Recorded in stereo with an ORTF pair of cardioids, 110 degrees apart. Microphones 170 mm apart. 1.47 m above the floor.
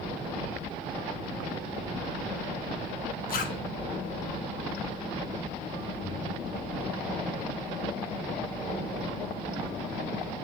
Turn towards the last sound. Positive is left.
turn(degrees=55)